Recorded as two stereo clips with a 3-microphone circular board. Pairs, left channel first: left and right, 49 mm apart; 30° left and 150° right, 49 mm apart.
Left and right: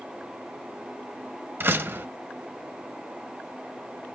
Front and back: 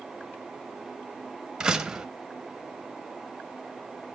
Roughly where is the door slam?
Right.